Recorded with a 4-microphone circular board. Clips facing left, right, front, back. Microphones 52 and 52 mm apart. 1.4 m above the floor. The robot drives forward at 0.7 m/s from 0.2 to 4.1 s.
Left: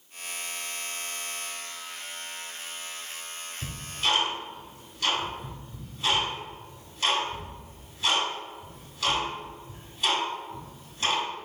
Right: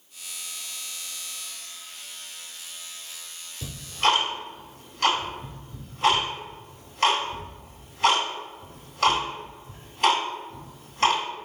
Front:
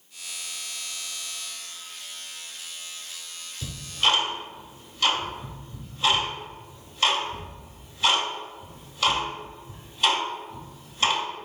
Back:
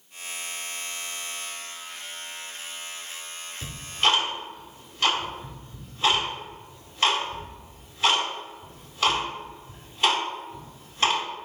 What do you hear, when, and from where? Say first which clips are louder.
3.6 s ticking: right 7 dB, back 1 dB; 115° right, 1.8 m; by 11.2 s 125° right, 1.9 m